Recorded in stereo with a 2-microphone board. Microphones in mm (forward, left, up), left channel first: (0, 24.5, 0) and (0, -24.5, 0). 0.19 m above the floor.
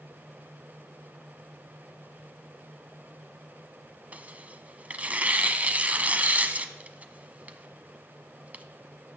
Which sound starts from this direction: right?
Tearing paper, at 4.1 s.